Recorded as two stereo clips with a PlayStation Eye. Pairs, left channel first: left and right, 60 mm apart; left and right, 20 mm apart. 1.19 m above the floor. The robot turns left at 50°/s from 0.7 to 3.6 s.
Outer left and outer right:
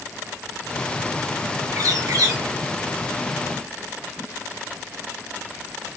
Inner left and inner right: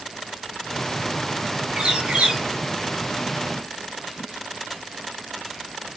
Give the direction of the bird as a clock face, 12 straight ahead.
2 o'clock.